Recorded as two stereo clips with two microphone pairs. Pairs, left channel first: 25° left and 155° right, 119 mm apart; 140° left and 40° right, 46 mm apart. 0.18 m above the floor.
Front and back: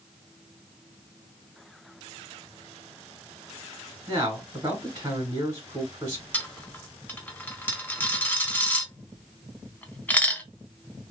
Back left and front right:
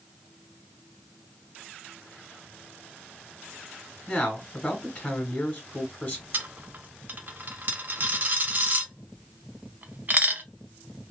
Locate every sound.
4.1 s a man speaking: 175° right, 1.2 m
6.3 s a dropped coin: 45° right, 0.5 m